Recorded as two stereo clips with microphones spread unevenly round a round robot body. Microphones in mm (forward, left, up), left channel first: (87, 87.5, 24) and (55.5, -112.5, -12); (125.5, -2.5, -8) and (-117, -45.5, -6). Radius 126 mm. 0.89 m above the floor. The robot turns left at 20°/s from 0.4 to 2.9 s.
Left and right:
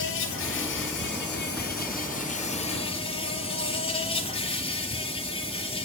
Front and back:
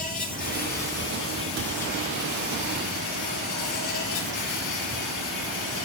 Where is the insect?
70° left, 3.5 m; by 5.8 s 20° left, 3.5 m.